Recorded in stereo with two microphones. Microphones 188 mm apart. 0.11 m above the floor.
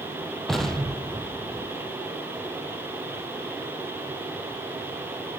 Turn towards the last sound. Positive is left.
turn(degrees=0)  # may be behind; listen again after turning